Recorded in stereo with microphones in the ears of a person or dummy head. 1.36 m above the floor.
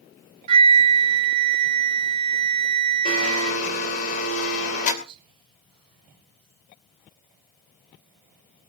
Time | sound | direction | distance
0.5 | a flute | 35° right (ahead or behind) | 1.8 m
3.0 | a blender | 45° left (ahead or behind) | 3.5 m
5.0 | whispering | 35° right (ahead or behind) | 5 m